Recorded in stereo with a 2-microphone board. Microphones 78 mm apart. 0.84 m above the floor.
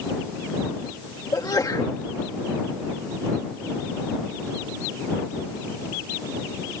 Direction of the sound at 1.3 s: 55° left (ahead or behind).